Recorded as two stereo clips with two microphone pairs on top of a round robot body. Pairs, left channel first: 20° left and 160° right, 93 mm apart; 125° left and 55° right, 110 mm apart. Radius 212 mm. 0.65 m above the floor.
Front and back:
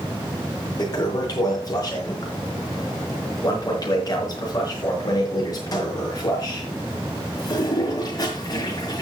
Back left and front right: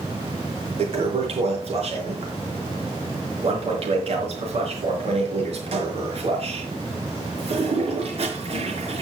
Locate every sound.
0.8 s a toilet flushing: 25° right, 5 m